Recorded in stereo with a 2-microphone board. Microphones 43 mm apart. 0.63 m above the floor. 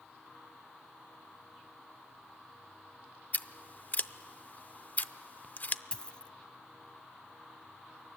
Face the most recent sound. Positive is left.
turn(degrees=25)  # may be behind; listen again after turning